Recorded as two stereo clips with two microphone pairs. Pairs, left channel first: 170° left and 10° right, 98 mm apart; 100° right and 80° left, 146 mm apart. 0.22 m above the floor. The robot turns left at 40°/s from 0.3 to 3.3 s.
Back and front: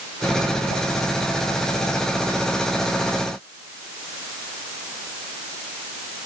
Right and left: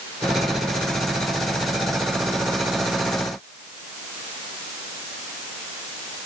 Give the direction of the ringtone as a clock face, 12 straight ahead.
I don't hear a ringtone.